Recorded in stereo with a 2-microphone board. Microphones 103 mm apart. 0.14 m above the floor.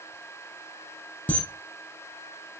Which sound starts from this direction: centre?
A camera shutter, at 1.3 s.